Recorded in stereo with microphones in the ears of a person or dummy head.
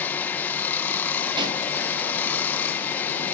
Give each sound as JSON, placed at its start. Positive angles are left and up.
{"t": 0.0, "sound": "running water", "side_deg": 10, "distance_m": 1.4}
{"t": 1.4, "sound": "a pop", "side_deg": -25, "distance_m": 3.5}